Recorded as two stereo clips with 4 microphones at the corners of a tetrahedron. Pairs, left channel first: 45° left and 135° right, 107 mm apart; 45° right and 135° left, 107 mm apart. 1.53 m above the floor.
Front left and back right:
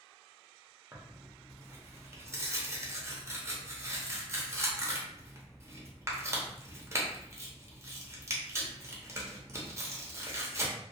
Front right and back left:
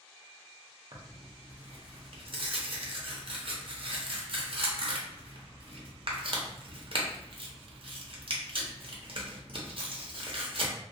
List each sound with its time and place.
0.9 s tearing paper: 165° left, 0.6 m